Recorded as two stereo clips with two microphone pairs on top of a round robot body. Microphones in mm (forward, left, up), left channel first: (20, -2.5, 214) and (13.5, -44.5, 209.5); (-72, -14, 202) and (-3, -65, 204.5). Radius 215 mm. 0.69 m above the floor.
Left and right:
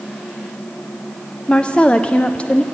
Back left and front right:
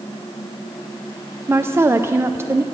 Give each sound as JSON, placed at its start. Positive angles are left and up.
{"t": 1.5, "sound": "a woman speaking", "azimuth_deg": 15, "distance_m": 0.6}